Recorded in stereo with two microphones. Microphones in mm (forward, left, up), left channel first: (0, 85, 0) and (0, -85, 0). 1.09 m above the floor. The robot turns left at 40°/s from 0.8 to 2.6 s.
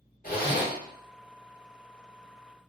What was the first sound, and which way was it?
A zipper, 55° left (ahead or behind).